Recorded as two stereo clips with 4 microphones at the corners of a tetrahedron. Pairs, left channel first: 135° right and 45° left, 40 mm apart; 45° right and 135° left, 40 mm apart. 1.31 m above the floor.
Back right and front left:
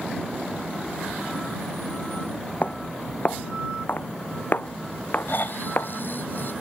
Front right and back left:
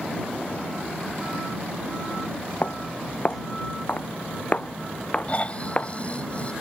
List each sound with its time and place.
2.6 s footsteps: 90° right; by 5.9 s 100° right
5.3 s snoring: 100° right